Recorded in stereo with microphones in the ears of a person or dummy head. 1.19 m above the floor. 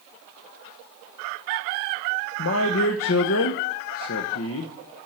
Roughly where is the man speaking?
Left.